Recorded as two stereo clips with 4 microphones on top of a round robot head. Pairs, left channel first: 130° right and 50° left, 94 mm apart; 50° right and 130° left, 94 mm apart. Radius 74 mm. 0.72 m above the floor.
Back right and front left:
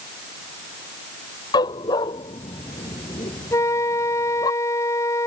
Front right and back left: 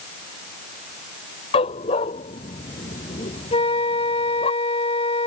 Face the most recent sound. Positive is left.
turn(degrees=-70)